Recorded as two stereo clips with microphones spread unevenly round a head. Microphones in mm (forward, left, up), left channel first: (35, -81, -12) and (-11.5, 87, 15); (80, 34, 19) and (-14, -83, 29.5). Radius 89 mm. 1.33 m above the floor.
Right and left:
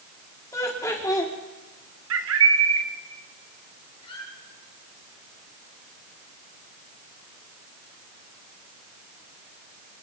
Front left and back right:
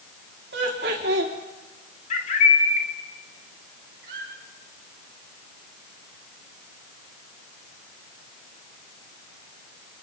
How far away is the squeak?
About 8.5 m.